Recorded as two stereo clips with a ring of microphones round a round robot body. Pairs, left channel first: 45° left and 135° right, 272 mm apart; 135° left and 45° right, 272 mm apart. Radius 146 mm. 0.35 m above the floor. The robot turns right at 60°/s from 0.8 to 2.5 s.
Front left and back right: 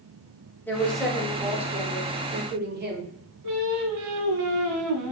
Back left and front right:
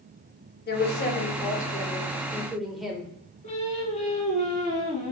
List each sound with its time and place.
0.7 s a woman speaking: 125° left, 0.9 m; by 3.1 s 135° right, 0.9 m
3.4 s singing: 155° right, 0.9 m